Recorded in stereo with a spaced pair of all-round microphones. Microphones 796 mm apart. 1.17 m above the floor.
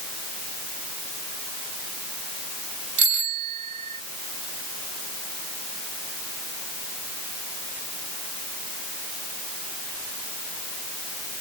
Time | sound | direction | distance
3.0 | a bicycle bell | 90° right | ?